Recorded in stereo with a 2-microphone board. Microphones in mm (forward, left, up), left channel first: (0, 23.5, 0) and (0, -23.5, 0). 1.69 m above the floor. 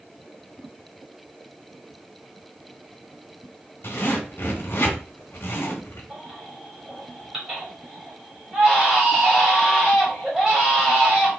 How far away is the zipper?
About 1.5 m.